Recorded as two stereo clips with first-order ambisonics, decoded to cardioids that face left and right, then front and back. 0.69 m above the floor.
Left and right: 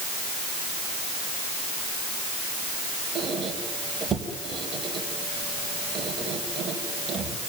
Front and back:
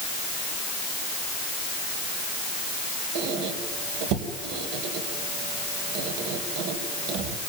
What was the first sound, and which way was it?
A squeak, 160° right.